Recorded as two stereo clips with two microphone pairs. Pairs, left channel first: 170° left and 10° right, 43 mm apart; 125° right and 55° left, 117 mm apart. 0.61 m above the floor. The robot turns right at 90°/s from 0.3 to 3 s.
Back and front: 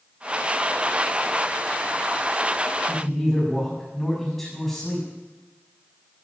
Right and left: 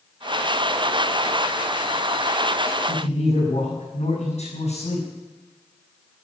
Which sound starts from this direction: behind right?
A man speaking, at 2.9 s.